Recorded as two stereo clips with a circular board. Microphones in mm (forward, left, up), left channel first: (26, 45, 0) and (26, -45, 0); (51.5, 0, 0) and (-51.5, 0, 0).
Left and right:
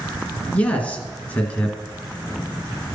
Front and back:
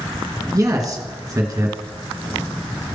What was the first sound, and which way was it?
A man speaking, 155° left.